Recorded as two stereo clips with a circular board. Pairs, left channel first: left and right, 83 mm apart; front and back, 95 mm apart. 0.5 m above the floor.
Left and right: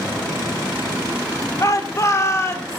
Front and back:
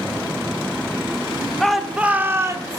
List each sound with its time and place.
1.6 s a shout: 80° left, 0.9 m; by 2.8 s 140° left, 1.1 m